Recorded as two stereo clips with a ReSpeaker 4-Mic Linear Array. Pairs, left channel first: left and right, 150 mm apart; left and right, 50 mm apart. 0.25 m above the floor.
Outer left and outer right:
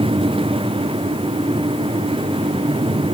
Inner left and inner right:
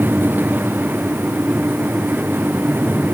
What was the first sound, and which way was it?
Only background noise.